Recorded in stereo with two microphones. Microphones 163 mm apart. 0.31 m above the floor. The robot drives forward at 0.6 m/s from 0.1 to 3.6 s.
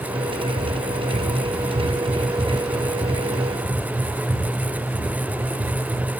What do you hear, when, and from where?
0.3 s running footsteps: 45° right (ahead or behind), 5.5 m; by 6.2 s 50° right (ahead or behind), 14 m